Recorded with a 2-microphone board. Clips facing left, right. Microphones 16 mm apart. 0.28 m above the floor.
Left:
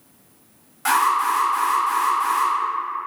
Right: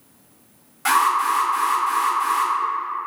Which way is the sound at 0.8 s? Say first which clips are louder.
Even; centre (ahead or behind).